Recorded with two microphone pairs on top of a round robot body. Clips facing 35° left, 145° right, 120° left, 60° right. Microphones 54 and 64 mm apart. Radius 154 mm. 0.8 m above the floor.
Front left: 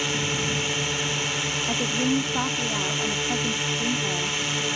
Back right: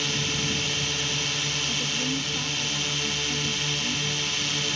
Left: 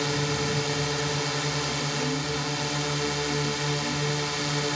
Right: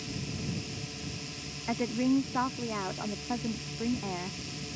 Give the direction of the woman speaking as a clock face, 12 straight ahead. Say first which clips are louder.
Front left 5 dB, right 1 dB; 12 o'clock.